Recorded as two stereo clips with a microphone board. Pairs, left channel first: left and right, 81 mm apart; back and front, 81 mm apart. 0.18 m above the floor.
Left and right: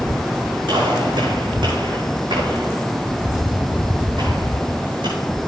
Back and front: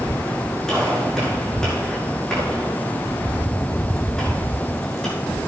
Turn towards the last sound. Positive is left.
turn(degrees=-95)